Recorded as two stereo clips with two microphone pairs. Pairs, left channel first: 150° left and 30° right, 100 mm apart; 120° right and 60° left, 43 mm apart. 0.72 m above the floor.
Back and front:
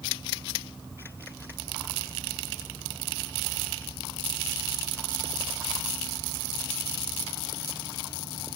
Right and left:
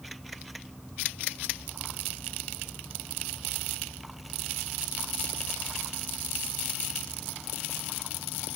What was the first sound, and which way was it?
Only background noise.